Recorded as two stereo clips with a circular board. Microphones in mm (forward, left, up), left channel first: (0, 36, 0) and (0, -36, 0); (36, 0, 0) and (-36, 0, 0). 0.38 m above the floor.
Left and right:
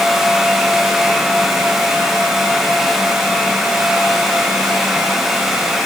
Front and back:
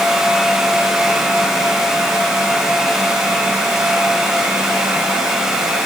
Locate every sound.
Only background noise.